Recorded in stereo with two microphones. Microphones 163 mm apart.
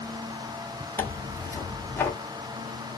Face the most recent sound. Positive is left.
turn(degrees=15)  # may be behind; listen again after turning